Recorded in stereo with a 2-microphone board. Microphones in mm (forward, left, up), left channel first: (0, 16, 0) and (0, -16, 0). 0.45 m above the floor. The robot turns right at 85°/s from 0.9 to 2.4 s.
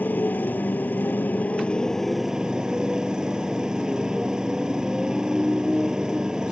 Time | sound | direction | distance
0.0 | a motorcycle | 75° left | ?